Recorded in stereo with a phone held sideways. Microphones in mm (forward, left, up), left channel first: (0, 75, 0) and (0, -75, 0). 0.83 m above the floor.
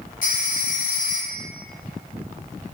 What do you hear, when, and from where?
0.2 s a phone ringing: 60° left (ahead or behind), 0.8 m